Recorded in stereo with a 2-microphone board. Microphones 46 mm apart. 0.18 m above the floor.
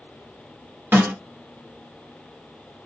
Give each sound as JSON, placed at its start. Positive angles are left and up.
{"t": 0.9, "sound": "a snare drum", "side_deg": -55, "distance_m": 1.5}